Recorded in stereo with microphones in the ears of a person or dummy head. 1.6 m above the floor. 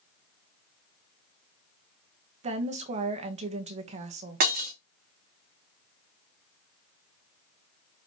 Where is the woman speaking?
40° right (ahead or behind), 1.3 m.